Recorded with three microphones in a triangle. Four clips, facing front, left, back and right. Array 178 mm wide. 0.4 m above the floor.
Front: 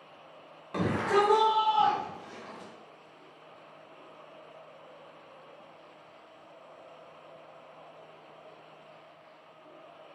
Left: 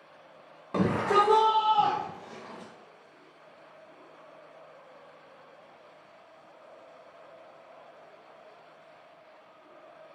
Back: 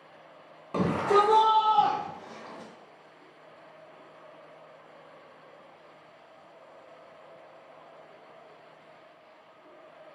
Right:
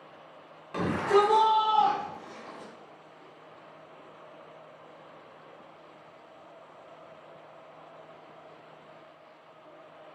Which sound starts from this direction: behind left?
A shout, at 0.7 s.